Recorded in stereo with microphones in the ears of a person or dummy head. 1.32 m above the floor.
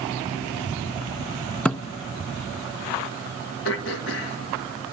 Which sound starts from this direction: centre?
A thud, at 1.6 s.